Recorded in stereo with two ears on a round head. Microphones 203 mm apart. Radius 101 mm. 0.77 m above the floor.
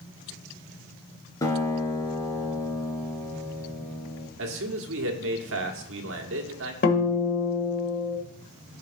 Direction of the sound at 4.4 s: 65° right (ahead or behind).